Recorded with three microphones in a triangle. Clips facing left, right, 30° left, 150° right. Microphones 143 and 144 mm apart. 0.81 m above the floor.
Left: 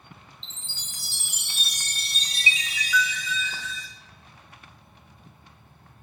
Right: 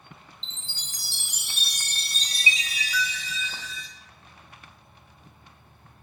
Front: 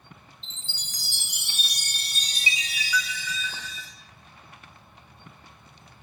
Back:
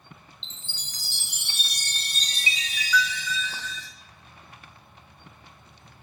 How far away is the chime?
About 1.0 m.